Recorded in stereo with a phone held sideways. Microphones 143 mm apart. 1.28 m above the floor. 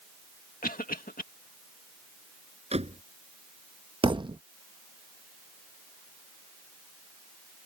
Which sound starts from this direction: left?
A cough, at 0.6 s.